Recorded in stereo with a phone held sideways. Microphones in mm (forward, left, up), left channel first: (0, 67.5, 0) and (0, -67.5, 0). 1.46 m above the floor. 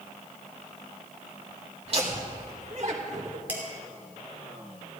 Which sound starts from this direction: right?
Laughter, at 1.9 s.